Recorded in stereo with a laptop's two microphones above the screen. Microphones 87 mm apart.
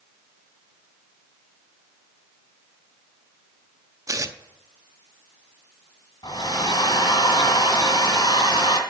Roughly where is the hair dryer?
Left.